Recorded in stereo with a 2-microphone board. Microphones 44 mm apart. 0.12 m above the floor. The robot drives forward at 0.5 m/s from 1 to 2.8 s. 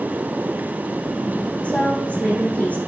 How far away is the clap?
I don't hear a clap.